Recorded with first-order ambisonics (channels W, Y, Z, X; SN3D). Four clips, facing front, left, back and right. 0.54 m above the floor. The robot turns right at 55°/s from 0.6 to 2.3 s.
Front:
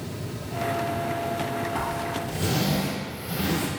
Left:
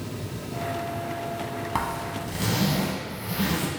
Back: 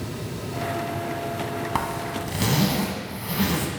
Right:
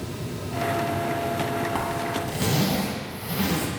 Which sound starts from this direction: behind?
A zipper, at 1.8 s.